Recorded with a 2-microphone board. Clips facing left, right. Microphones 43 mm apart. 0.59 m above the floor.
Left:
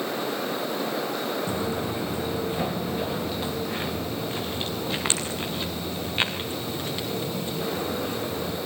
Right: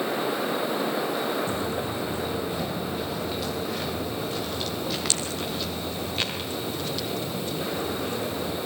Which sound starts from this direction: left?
Footsteps, at 1.5 s.